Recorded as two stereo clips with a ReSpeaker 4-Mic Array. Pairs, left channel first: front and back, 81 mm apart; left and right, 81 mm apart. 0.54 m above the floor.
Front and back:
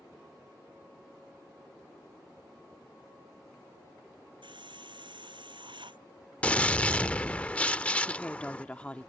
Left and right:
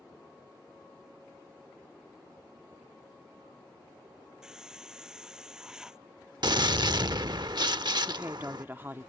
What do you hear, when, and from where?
4.4 s a hiss: 170° right
6.4 s a gunshot: 70° right
8.1 s a woman speaking: 60° right